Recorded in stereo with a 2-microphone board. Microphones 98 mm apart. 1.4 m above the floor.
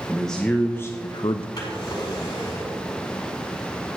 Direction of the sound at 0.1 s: 5° left (ahead or behind).